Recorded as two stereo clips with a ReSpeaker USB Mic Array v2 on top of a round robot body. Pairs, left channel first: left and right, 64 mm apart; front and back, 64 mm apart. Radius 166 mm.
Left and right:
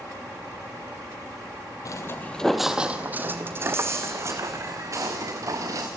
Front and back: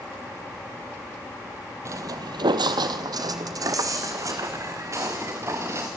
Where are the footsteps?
130° left, 0.7 m; by 5.9 s 130° right, 3 m.